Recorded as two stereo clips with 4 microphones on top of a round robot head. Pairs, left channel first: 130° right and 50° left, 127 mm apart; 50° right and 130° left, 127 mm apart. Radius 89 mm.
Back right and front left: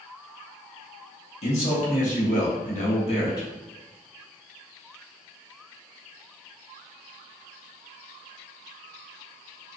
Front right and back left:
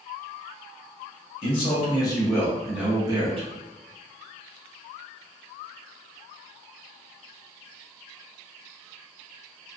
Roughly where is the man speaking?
Right.